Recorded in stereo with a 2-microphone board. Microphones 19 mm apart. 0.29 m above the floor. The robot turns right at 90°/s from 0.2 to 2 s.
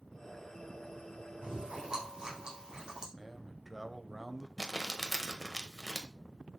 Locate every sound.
1.4 s chewing: 85° right, 4.5 m; by 3.1 s 35° right (ahead or behind), 4.5 m
3.2 s a man speaking: 5° right (ahead or behind), 0.9 m
4.6 s crumpling: 15° right (ahead or behind), 1.2 m